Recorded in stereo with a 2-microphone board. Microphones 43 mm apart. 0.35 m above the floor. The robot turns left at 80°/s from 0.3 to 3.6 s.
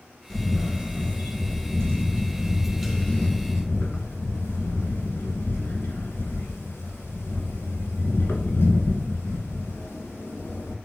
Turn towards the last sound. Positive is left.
turn(degrees=110)